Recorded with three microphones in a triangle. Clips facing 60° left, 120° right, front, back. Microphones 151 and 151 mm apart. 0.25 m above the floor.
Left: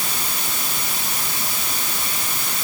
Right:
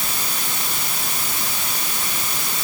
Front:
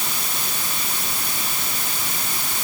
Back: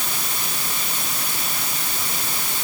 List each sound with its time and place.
Only background noise.